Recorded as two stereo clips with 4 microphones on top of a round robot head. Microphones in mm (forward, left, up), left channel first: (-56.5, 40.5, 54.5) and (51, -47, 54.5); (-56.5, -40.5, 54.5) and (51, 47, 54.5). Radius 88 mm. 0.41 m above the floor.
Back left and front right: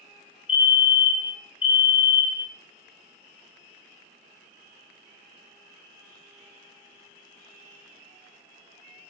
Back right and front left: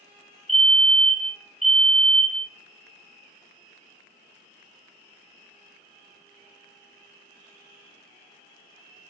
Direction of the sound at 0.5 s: 130° left.